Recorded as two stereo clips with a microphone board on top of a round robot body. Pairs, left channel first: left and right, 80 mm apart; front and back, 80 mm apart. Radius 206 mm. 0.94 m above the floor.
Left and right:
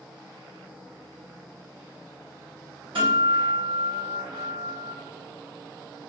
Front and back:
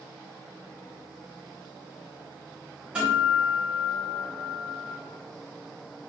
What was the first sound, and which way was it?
A guitar, 105° right.